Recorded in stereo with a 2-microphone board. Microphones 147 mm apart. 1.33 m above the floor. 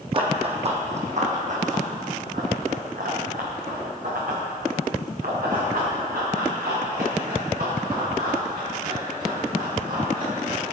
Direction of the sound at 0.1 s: 35° right (ahead or behind).